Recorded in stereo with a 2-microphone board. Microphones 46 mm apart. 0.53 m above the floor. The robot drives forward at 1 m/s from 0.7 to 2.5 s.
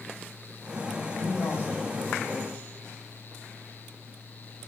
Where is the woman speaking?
70° left (ahead or behind), 2.5 m; by 2.6 s 55° left (ahead or behind), 3 m.